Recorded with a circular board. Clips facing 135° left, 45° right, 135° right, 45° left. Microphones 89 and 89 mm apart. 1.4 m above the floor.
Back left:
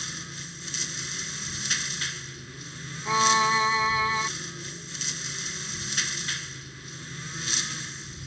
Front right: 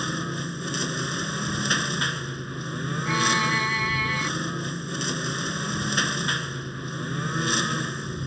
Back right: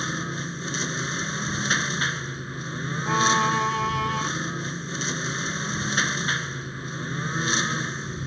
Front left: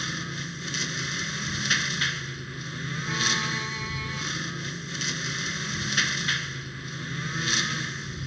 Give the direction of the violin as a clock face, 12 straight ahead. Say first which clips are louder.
Back left 3 dB, back right 10 dB; 5 o'clock.